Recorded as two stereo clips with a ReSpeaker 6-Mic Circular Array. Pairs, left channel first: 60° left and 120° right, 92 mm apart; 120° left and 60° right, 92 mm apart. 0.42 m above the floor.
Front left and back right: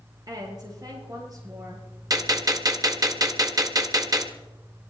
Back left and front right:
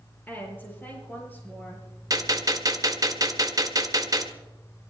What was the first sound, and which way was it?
A woman speaking, 170° right.